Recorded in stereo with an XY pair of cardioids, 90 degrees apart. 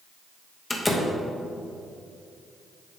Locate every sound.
0.7 s a door slam: 15° left, 1.2 m